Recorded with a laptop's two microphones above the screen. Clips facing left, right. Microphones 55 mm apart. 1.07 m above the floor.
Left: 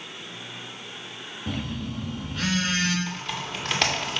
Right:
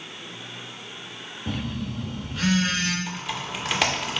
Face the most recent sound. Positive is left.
turn(degrees=-5)  # may be behind; listen again after turning